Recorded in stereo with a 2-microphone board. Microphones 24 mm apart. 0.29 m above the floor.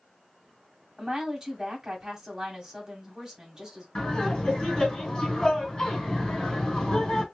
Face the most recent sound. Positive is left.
turn(degrees=30)  # may be behind; listen again after turning